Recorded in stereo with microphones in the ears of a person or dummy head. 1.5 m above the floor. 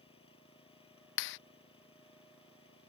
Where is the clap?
60° left (ahead or behind).